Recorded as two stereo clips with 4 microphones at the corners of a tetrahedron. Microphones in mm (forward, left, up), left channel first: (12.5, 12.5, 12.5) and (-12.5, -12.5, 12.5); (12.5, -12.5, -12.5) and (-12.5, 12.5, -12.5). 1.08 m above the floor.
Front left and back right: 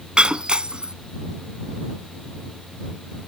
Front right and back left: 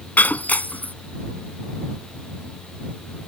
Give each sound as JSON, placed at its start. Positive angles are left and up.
{"t": 0.2, "sound": "breaking glass", "azimuth_deg": -75}